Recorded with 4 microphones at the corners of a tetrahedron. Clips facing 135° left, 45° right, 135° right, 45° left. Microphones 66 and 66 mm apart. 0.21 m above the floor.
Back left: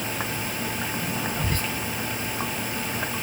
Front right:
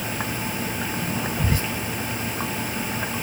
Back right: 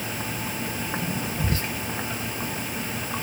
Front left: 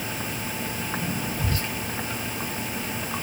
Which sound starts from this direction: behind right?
Whispering, at 1.4 s.